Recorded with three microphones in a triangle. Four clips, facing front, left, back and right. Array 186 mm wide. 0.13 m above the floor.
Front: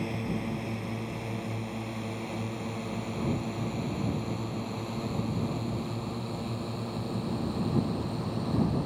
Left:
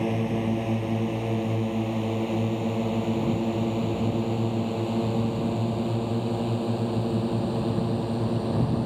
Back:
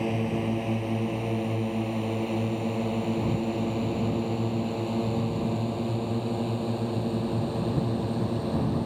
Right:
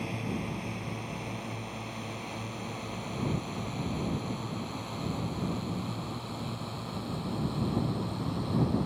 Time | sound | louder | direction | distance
0.0 | a drone | left 9 dB, back 5 dB | 125° left | ?